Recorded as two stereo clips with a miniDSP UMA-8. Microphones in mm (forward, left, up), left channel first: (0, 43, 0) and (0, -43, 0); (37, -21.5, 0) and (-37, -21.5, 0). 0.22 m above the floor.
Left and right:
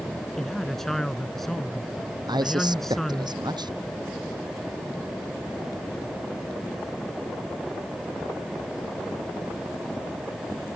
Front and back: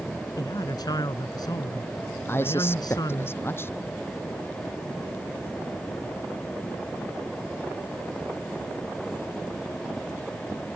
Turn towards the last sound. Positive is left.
turn(degrees=-60)